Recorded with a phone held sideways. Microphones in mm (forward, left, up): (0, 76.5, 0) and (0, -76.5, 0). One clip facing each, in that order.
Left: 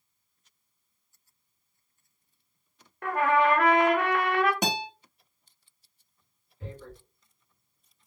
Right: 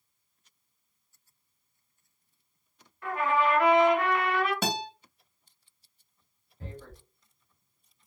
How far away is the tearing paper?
About 1.3 m.